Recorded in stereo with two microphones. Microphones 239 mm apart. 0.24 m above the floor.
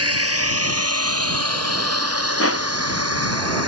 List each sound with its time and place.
0.0 s a drone: 75° right (ahead or behind); by 3.7 s 85° right
2.4 s crushing: 70° left (ahead or behind)